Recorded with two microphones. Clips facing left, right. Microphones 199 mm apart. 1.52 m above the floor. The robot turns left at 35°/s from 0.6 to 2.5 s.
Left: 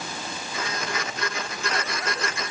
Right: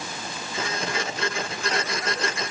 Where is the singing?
No singing in this recording.